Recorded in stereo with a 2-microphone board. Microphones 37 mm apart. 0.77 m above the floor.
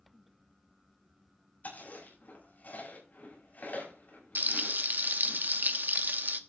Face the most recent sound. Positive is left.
turn(degrees=-60)  # may be behind; listen again after turning